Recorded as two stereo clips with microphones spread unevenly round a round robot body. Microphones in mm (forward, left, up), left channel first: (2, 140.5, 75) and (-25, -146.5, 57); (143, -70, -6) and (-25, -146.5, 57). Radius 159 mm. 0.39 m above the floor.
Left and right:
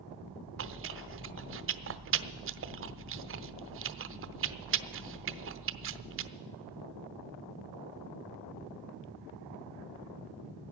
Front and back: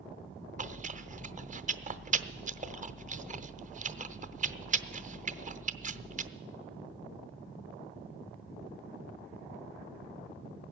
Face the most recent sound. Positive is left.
turn(degrees=-95)